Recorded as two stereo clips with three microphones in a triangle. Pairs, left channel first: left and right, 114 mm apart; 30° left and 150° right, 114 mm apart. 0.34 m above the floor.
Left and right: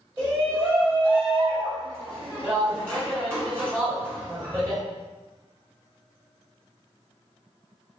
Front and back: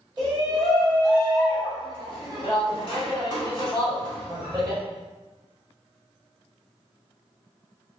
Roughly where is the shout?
Behind right.